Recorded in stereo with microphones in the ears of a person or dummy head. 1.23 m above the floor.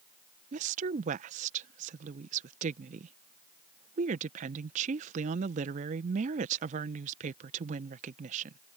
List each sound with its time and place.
0.5 s a woman speaking: 45° right (ahead or behind)